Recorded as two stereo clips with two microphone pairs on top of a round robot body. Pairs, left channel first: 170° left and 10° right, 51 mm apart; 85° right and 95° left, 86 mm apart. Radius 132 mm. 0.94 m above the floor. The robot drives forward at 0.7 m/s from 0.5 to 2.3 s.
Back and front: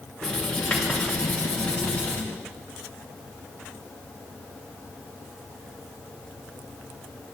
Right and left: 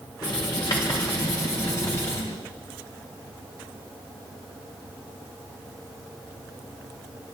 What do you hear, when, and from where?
0.2 s writing: 120° right, 2 m; by 2.2 s 140° right, 3 m